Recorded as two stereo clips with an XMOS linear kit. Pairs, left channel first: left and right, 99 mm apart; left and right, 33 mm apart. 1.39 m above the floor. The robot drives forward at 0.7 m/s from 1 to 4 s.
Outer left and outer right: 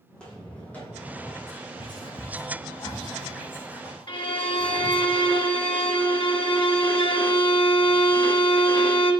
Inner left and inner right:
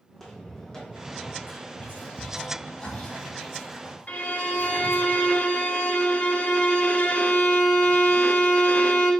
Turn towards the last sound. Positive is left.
turn(degrees=55)  # may be behind; listen again after turning